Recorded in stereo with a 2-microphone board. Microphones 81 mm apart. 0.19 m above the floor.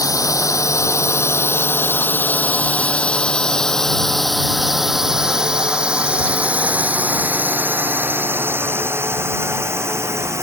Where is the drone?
45° left (ahead or behind); by 10.4 s 35° right (ahead or behind).